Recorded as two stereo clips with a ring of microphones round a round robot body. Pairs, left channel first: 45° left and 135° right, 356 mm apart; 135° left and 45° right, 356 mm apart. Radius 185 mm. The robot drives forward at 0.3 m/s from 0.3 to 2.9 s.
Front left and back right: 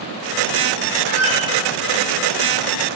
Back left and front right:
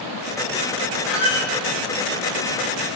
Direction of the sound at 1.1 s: 130° right.